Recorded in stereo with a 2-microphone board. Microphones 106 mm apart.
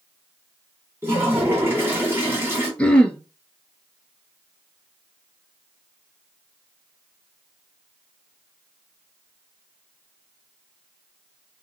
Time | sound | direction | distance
1.0 | a toilet flushing | 20° right (ahead or behind) | 1.3 m
2.8 | throat clearing | 10° left (ahead or behind) | 0.6 m